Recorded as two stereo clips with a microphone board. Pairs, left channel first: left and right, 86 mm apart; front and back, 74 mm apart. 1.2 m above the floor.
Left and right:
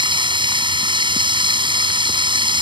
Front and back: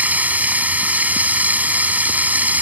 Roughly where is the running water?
Right.